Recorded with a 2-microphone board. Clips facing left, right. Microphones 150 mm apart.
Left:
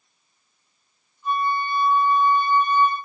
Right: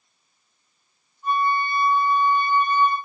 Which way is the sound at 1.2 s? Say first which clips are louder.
Right 1 dB; 55° right (ahead or behind).